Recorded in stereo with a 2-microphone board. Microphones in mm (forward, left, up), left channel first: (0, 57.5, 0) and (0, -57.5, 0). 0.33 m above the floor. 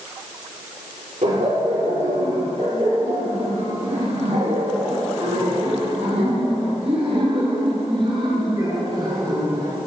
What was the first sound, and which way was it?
Laughter, 80° right.